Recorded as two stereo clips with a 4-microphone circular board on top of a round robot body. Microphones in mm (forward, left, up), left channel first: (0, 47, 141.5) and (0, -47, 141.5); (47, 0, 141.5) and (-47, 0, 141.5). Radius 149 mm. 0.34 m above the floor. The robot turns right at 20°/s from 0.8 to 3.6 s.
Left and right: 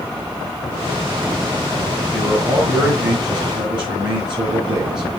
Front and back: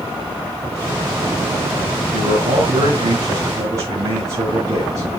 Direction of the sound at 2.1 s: 160° right.